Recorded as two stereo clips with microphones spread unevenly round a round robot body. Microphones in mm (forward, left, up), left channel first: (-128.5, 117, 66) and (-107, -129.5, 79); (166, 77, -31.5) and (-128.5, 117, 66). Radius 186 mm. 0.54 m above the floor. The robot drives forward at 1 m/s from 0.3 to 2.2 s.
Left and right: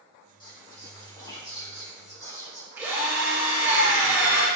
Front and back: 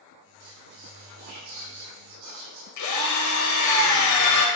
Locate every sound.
0.4 s whispering: 165° left, 4 m; by 2.7 s 170° left, 5.5 m
2.8 s a drill: straight ahead, 2 m